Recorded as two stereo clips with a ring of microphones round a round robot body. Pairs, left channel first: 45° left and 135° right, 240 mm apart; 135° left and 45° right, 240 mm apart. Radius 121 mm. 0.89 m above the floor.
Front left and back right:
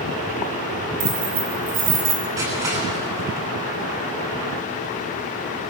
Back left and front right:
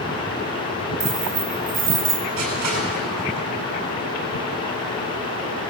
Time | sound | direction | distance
1.0 | keys jangling | 110° right | 6 m
2.4 | crushing | 60° right | 10 m